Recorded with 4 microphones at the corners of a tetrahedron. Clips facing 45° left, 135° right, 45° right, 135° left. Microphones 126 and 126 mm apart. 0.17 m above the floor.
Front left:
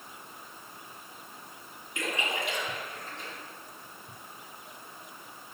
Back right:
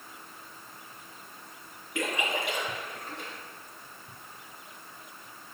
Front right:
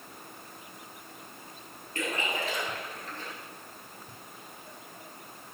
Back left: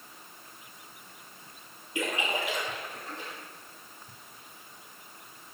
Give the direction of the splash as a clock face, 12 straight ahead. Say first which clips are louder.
Back right 2 dB, back left 1 dB; 5 o'clock.